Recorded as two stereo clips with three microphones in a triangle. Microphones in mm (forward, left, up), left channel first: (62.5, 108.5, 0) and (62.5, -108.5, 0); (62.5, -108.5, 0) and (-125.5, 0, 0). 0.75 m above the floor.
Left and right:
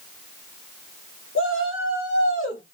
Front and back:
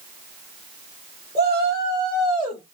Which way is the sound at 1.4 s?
95° left.